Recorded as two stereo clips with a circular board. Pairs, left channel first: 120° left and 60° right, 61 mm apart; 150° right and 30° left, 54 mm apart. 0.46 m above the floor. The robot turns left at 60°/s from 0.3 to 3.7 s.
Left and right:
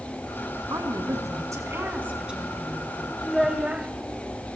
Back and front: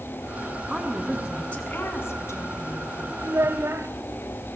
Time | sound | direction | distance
0.7 | a woman speaking | 40° right | 5 m
3.2 | a child speaking | 40° left | 1.9 m